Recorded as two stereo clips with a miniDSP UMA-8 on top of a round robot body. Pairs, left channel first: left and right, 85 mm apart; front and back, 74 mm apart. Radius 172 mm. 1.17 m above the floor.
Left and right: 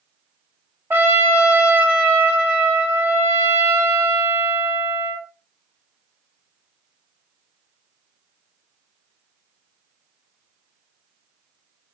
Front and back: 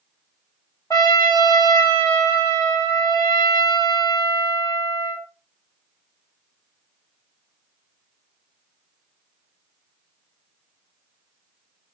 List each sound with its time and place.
0.9 s a trumpet: 30° right, 0.6 m